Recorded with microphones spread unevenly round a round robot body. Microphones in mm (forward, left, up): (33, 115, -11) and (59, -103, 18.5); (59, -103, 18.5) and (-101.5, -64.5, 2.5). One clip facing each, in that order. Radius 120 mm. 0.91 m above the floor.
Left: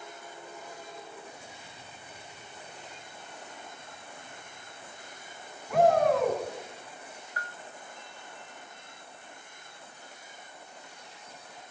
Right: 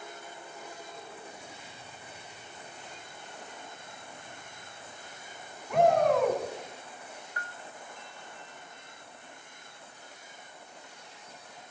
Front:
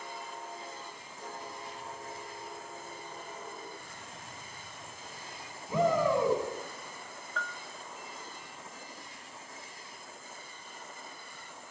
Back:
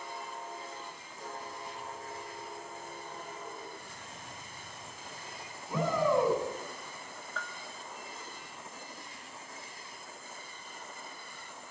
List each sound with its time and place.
5.7 s a shout: 5° left, 7 m
7.4 s a bell: 105° right, 1.0 m